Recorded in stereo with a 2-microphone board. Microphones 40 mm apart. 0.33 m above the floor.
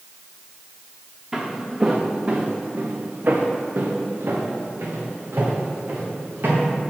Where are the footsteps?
20° right (ahead or behind), 1.5 m; by 6.7 s 75° right (ahead or behind), 3 m.